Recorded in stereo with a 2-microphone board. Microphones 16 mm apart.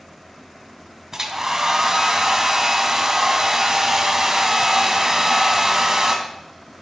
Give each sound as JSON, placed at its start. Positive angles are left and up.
{"t": 1.1, "sound": "a hair dryer", "side_deg": -30, "distance_m": 1.7}